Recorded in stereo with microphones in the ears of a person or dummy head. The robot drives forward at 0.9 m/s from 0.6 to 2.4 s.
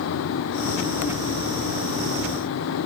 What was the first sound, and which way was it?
Only background noise.